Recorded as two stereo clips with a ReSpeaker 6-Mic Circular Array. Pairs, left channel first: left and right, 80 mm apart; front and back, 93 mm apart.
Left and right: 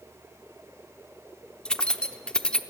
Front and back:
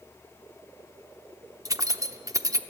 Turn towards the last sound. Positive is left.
turn(degrees=165)